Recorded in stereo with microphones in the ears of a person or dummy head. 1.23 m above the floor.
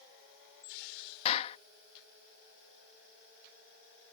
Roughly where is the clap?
Left.